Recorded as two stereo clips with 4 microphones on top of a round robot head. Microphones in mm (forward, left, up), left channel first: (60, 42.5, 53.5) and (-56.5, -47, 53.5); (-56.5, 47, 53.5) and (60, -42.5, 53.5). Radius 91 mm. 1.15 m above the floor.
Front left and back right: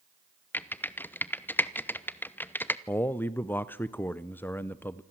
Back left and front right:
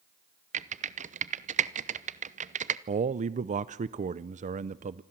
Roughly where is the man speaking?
Ahead right.